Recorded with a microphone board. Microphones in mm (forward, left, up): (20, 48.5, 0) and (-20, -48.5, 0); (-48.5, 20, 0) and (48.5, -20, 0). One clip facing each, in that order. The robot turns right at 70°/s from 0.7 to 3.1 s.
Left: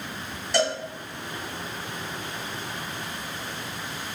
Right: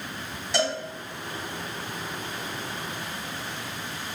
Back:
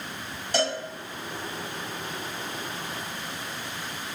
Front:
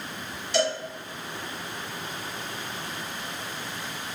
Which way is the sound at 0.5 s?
160° left.